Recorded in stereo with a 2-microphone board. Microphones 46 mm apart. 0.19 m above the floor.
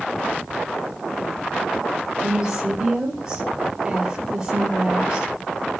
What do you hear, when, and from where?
2.2 s a woman speaking: 20° right (ahead or behind), 3.5 m